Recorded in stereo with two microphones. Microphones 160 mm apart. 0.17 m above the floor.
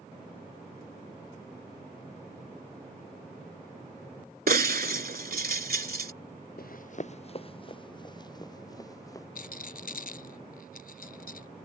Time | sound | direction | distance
4.5 | breaking glass | 70° right (ahead or behind) | ?
6.6 | running footsteps | 70° left (ahead or behind) | ?
9.3 | a rattle | 65° left (ahead or behind) | ?